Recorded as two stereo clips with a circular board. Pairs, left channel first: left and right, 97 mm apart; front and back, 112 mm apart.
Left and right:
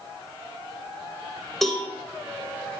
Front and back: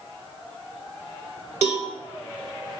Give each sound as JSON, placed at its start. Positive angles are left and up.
{"t": 1.6, "sound": "a cowbell", "azimuth_deg": 180, "distance_m": 0.5}